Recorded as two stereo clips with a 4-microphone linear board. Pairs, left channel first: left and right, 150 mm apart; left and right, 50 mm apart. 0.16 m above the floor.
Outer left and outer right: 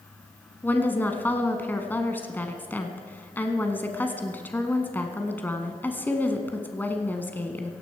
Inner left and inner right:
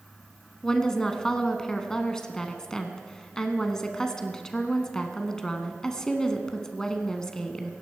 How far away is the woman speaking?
About 1.3 m.